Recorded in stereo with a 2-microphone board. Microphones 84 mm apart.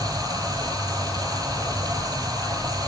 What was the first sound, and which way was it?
Running water, 50° right (ahead or behind).